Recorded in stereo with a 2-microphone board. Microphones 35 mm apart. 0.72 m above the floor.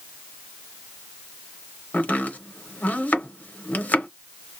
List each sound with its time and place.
1.9 s chopping: 55° left (ahead or behind), 0.7 m